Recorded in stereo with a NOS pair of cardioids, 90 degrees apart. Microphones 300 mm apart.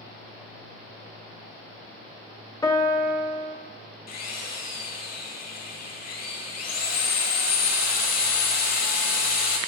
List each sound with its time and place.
2.6 s a piano: 10° left, 0.6 m
4.1 s a drill: 60° left, 1.4 m